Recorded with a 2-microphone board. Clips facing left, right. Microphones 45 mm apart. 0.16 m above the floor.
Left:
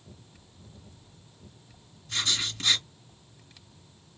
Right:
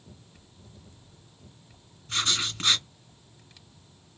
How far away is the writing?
About 2 m.